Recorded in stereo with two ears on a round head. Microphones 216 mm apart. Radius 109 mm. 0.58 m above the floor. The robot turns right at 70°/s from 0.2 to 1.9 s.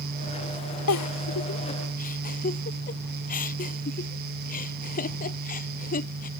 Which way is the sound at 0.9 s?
70° left (ahead or behind).